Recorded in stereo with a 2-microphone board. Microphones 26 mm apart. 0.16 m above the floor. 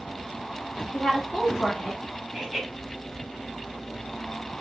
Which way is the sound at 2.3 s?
5° left (ahead or behind).